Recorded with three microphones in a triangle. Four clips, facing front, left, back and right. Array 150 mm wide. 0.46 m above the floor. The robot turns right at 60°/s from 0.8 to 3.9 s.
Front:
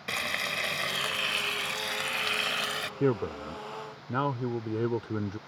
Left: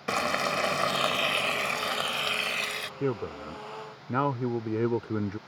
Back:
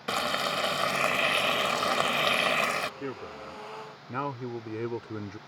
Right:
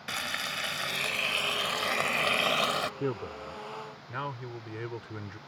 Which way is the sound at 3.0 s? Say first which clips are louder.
Left 3 dB, front 9 dB; 20° left.